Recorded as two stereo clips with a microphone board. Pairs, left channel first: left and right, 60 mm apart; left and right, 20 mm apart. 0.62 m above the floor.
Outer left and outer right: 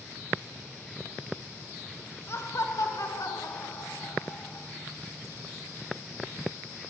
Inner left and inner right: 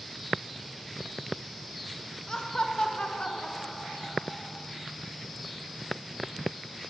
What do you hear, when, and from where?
2.3 s laughter: 50° left (ahead or behind), 1.7 m; by 4.7 s 70° left (ahead or behind), 3 m